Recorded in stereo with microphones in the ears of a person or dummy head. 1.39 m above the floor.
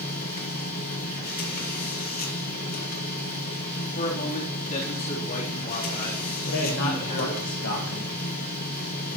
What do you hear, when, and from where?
0.0 s a machine running: 50° left (ahead or behind), 1.7 m
4.0 s a man speaking: 45° left (ahead or behind), 3 m
6.5 s a man speaking: 60° left (ahead or behind), 1.2 m